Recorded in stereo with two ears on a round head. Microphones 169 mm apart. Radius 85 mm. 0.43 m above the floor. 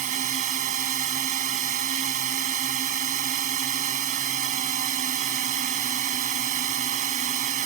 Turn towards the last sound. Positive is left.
turn(degrees=-45)  # may be behind; listen again after turning